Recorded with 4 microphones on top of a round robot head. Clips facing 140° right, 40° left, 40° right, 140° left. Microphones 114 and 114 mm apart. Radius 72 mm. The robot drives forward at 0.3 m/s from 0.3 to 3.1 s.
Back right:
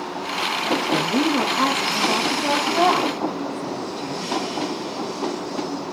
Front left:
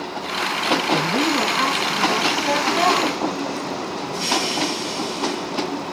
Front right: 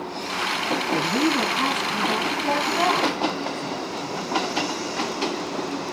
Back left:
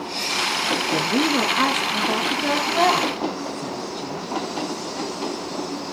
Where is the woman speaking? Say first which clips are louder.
Even, back left 1 dB; 155° left, 0.9 m; by 4.3 s 165° left, 1.5 m.